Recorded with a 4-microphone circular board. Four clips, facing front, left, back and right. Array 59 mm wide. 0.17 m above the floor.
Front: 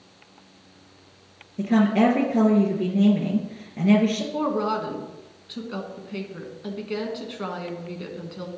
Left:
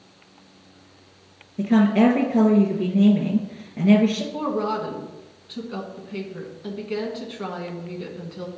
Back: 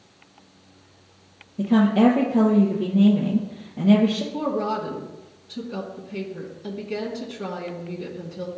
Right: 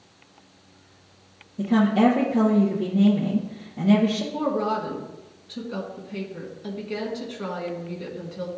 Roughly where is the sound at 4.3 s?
Ahead.